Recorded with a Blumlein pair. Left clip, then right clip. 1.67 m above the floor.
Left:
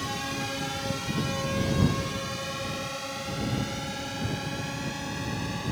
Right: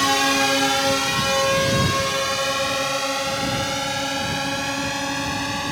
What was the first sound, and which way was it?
A drone, 35° right.